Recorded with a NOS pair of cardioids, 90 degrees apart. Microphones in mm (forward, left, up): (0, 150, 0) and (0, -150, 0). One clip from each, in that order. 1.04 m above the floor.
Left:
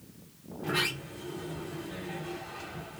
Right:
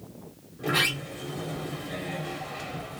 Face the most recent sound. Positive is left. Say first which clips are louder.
# right 5 dB
turn(degrees=-65)